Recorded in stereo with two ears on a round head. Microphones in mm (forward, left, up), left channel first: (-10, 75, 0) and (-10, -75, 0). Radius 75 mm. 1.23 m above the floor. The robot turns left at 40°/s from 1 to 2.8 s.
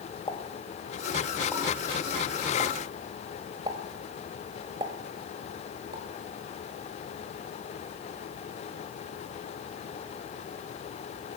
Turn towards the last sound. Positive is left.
turn(degrees=-30)  # may be behind; listen again after turning